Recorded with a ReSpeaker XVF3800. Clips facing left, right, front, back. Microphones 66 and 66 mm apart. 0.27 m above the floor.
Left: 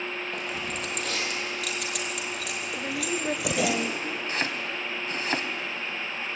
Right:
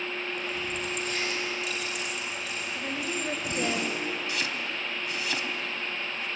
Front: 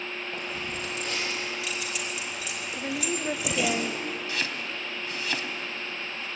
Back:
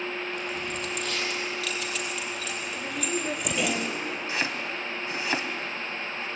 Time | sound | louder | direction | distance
0.3 | keys jangling | even, back 2 dB | 60° left | 5 m
2.8 | a woman speaking | left 3 dB, front 1 dB | 50° left | 0.9 m
4.3 | chopping | left 2 dB, back 2 dB | 120° left | 1.8 m